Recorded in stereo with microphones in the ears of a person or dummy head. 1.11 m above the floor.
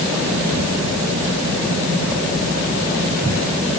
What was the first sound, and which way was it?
Only background noise.